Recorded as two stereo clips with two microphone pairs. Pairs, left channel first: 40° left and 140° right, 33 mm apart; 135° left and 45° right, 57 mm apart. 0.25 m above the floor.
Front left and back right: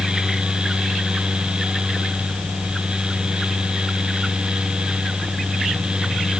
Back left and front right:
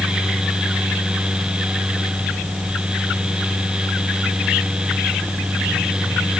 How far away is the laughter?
I don't hear laughter.